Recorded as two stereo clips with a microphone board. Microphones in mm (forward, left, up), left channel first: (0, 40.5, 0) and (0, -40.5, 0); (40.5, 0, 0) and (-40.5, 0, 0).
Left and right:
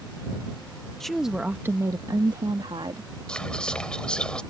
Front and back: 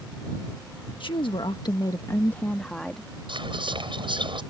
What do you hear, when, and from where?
1.0 s a woman speaking: 5° left; by 3.1 s 90° right
3.3 s whispering: 170° left